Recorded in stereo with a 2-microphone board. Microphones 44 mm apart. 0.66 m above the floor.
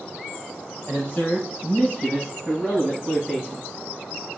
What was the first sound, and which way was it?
A man speaking, 25° left (ahead or behind).